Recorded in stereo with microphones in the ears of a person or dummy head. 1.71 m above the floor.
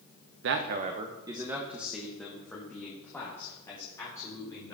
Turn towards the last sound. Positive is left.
turn(degrees=10)  # may be behind; listen again after turning